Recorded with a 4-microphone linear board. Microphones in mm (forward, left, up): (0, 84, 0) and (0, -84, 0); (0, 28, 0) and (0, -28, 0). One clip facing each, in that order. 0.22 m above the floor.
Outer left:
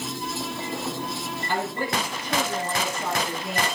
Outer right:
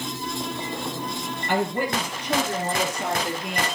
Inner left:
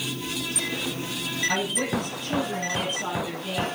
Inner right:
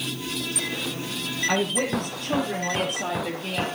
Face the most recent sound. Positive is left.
turn(degrees=-70)  # may be behind; listen again after turning